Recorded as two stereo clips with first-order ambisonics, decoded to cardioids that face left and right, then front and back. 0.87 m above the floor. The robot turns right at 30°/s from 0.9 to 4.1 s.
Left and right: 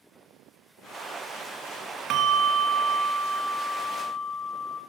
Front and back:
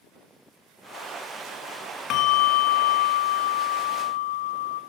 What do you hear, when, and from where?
2.1 s a bell: 45° right, 0.6 m; by 4.8 s 15° left, 0.6 m